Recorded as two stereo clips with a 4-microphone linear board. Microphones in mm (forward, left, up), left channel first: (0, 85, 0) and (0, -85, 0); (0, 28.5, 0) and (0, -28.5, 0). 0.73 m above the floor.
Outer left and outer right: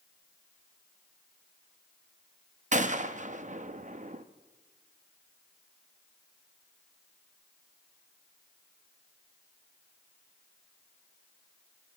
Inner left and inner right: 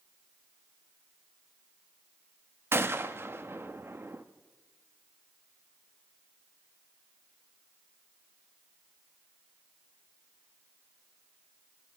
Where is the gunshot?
45° right (ahead or behind), 0.6 m.